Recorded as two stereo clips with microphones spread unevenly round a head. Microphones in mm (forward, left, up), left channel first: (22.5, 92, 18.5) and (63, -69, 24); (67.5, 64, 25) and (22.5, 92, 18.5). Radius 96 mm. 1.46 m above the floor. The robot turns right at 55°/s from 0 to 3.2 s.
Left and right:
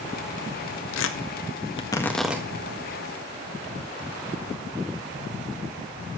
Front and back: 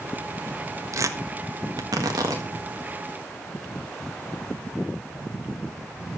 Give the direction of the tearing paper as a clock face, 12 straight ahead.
8 o'clock.